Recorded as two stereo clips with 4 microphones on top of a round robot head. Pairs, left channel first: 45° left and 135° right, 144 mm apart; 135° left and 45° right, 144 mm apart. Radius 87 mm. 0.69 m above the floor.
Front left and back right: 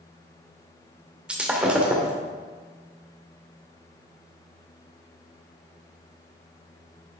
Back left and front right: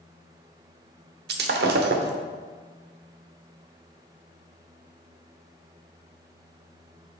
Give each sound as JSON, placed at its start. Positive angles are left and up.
{"t": 1.3, "sound": "breaking glass", "azimuth_deg": -55, "distance_m": 0.8}